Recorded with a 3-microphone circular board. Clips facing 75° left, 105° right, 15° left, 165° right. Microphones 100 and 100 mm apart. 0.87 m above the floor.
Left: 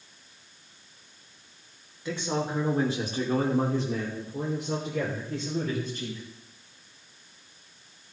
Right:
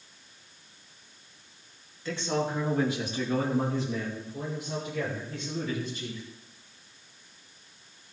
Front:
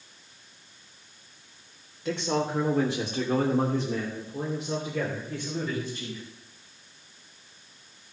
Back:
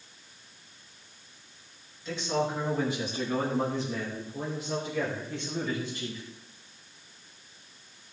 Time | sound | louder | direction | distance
2.0 | a man speaking | even, front 2 dB | straight ahead | 3 m